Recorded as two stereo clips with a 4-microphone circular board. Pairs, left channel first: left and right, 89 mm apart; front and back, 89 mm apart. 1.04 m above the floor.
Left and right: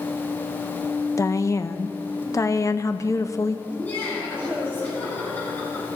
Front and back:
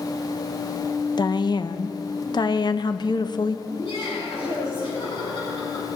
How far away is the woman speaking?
About 0.6 m.